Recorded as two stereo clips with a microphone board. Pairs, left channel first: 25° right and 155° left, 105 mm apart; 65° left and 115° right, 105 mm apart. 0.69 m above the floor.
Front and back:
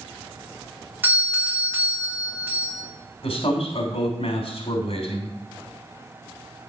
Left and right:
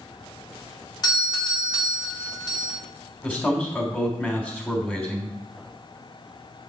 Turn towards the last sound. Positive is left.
turn(degrees=-5)